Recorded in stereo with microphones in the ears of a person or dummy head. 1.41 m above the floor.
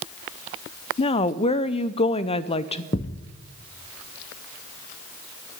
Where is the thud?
25° left (ahead or behind), 0.8 m.